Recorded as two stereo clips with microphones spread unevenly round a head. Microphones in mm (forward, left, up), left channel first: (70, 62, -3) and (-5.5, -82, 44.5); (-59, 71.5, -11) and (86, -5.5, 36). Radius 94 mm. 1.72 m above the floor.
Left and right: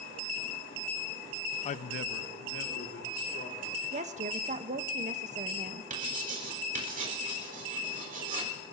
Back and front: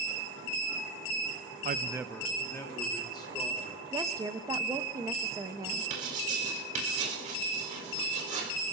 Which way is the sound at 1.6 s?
5° left.